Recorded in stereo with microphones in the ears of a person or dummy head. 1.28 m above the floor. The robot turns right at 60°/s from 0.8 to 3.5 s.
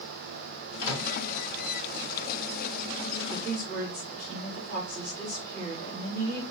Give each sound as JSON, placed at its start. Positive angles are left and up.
{"t": 0.8, "sound": "a microwave", "side_deg": 55, "distance_m": 2.5}
{"t": 3.3, "sound": "a woman speaking", "side_deg": -35, "distance_m": 2.5}